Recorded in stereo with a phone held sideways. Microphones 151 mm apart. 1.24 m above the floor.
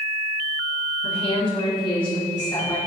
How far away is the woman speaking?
About 3 m.